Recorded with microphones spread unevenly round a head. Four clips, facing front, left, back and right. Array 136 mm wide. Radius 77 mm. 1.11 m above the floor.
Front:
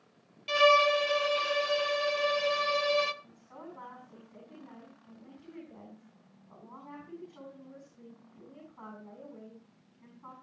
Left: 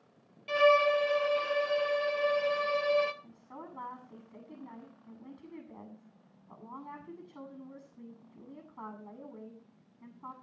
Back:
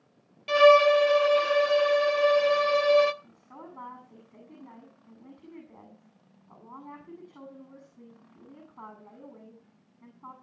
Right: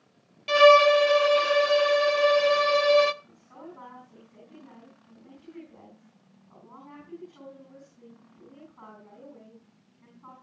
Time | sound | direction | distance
0.5 | a violin | 85° right | 0.8 m
3.2 | a woman speaking | 130° left | 8.5 m